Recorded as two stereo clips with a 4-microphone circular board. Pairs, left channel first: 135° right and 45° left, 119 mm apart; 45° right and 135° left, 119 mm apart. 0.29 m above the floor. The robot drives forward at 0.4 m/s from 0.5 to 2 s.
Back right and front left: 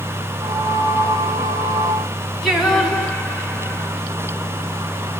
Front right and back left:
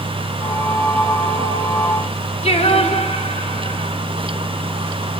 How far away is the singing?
About 2.5 m.